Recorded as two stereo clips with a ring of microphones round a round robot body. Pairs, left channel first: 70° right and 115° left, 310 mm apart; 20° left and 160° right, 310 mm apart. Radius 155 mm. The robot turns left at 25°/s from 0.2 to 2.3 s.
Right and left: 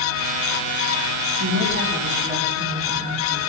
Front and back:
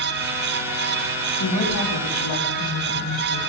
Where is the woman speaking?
65° left, 5.5 m; by 3.4 s 40° left, 5.5 m.